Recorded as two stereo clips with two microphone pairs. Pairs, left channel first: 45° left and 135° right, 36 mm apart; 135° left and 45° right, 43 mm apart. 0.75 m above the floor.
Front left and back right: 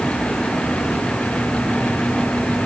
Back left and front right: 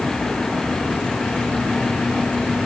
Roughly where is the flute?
No flute in this recording.